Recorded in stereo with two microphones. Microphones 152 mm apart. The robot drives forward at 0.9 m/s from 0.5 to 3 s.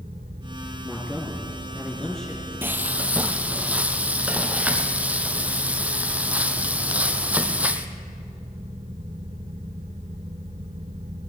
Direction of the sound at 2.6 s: 15° right (ahead or behind).